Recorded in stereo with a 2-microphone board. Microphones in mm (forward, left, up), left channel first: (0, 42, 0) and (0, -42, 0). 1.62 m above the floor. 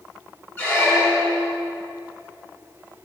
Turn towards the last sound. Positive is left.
turn(degrees=25)  # may be behind; listen again after turning